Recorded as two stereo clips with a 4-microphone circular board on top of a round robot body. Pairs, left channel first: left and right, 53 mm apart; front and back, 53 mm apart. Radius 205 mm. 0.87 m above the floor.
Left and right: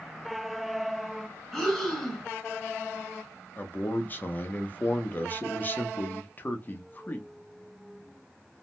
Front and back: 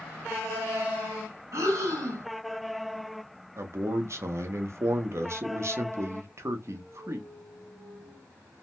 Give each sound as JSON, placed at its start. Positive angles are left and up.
{"t": 1.5, "sound": "breathing", "azimuth_deg": 175, "distance_m": 1.5}
{"t": 3.6, "sound": "a man speaking", "azimuth_deg": 150, "distance_m": 0.7}